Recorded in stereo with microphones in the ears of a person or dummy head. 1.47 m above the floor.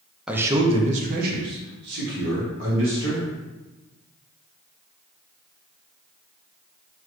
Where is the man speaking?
5° right (ahead or behind), 0.6 m; by 3.3 s 75° right (ahead or behind), 2.5 m.